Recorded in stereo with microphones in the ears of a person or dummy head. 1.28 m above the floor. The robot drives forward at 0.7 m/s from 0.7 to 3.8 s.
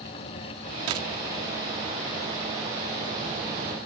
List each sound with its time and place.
0.9 s a dropped coin: 35° right (ahead or behind); by 1.1 s 30° right (ahead or behind)